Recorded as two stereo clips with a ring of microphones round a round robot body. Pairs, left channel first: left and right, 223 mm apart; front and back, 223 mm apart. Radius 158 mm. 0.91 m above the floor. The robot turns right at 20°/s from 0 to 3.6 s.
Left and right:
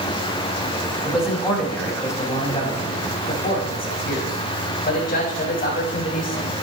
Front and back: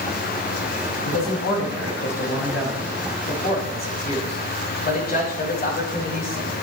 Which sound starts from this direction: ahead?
A man speaking, at 1.0 s.